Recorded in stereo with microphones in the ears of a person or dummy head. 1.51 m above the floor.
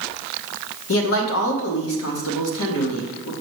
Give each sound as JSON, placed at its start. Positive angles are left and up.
{"t": 0.9, "sound": "a man speaking", "side_deg": 80, "distance_m": 1.3}